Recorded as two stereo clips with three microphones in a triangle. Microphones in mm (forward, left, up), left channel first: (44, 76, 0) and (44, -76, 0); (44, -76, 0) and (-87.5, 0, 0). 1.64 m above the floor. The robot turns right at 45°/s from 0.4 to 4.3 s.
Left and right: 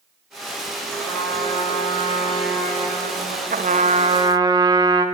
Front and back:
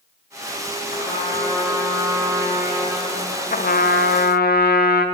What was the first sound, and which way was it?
A trumpet, 10° left.